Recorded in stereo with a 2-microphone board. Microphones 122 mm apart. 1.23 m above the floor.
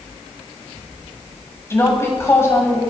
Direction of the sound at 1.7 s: 20° left (ahead or behind).